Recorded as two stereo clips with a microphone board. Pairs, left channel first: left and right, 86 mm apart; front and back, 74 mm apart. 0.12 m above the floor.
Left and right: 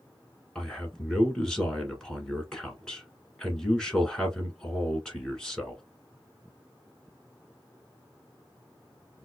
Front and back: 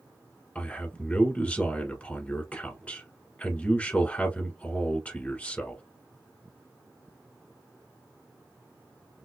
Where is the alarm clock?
I don't hear an alarm clock.